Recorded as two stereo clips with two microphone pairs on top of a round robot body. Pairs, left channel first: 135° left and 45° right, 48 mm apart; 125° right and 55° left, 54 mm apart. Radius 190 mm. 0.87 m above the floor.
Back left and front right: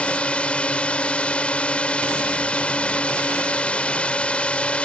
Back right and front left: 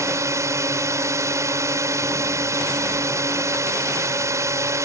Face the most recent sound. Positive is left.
turn(degrees=65)